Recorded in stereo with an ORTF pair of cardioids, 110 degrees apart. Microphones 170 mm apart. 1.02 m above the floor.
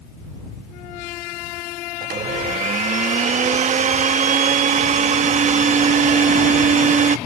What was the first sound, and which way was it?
A blender, 40° right.